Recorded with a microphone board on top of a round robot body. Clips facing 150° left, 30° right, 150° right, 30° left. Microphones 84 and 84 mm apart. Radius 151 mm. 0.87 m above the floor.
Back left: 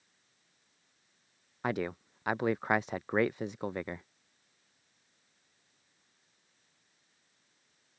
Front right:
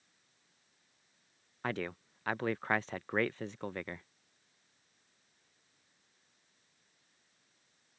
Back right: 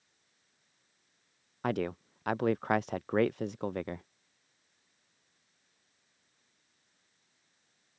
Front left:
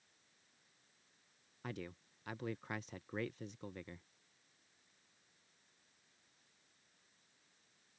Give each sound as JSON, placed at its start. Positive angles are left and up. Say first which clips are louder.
{"t": 1.6, "sound": "a man speaking", "louder": "back left 4 dB, back right 15 dB", "azimuth_deg": -135}